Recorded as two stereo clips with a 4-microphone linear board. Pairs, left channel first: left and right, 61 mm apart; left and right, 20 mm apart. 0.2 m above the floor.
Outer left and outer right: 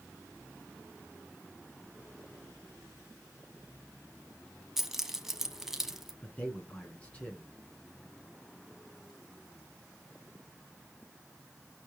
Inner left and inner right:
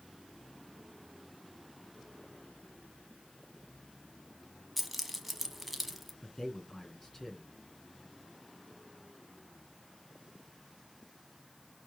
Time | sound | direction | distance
4.8 | keys jangling | 5° right (ahead or behind) | 0.8 m
6.2 | a man speaking | 20° left (ahead or behind) | 2.5 m